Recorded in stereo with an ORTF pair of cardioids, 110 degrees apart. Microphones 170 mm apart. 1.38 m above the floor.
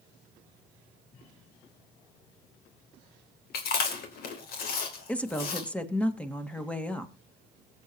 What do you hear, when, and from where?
3.5 s chewing: 65° left, 3 m
5.1 s a woman speaking: 10° left, 1.9 m